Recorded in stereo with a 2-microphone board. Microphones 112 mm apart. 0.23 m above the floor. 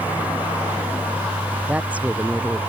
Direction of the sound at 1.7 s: 10° right (ahead or behind).